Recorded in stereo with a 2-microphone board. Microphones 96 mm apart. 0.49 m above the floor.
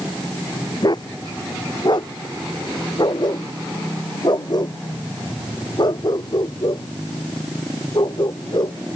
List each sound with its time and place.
0.8 s a dog barking: 50° left (ahead or behind)